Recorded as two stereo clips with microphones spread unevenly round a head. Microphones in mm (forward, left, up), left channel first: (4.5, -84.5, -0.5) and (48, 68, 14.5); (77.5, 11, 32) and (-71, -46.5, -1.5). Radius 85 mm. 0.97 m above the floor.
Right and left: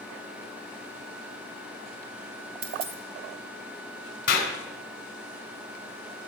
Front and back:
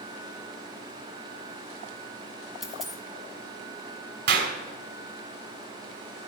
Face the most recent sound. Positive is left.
turn(degrees=-145)